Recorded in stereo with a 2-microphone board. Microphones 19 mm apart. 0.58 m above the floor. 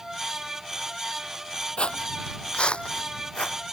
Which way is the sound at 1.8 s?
65° left (ahead or behind).